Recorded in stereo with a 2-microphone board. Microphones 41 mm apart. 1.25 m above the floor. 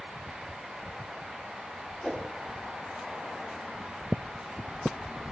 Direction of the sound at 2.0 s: 20° left (ahead or behind).